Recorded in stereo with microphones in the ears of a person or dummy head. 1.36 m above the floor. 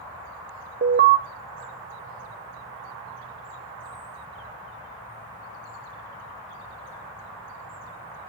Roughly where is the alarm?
Right.